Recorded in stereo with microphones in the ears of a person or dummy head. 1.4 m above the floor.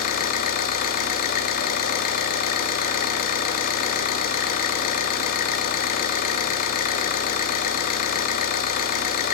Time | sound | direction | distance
0.0 | an engine running | 50° left (ahead or behind) | 1.8 m